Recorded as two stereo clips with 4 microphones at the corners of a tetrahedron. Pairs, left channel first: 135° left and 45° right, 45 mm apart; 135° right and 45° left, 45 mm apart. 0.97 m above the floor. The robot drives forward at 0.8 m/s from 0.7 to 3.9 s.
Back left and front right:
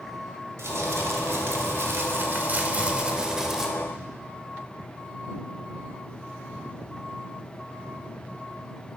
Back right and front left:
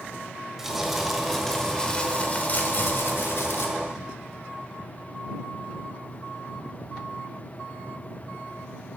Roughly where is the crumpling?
Ahead right.